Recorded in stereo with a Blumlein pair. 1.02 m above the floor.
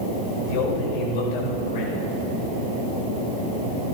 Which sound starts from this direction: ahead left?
A man speaking, at 0.5 s.